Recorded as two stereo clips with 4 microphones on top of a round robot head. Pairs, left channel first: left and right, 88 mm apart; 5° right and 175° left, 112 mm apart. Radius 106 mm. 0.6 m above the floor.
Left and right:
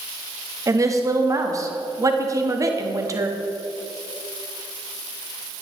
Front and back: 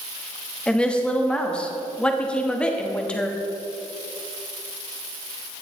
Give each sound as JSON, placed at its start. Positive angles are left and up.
{"t": 0.7, "sound": "a woman speaking", "azimuth_deg": -80, "distance_m": 1.3}